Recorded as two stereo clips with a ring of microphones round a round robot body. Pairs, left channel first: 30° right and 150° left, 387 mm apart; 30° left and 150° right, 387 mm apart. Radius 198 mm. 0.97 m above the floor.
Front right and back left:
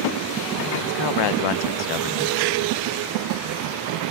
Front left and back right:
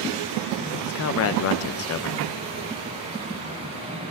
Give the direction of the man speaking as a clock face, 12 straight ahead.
1 o'clock.